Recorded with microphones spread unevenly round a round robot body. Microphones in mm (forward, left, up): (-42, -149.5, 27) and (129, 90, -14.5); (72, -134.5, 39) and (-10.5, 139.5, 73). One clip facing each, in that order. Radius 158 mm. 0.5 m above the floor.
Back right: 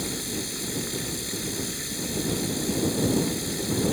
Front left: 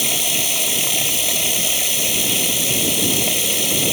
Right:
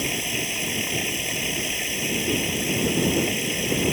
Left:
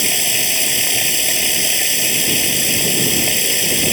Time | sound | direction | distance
0.0 | running water | 75° left | ?